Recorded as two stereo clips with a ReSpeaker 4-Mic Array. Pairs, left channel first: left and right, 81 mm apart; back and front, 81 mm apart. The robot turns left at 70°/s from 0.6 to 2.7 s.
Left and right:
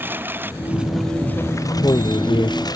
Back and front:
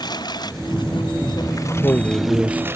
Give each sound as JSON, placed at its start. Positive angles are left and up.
{"t": 0.0, "sound": "a lawn mower", "azimuth_deg": -155}
{"t": 1.6, "sound": "a man speaking", "azimuth_deg": 145}